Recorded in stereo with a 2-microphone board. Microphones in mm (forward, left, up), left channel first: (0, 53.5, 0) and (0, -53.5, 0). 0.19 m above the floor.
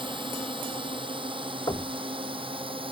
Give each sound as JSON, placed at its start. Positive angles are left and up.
{"t": 0.0, "sound": "a drone", "side_deg": -50}
{"t": 1.7, "sound": "knocking", "side_deg": 45}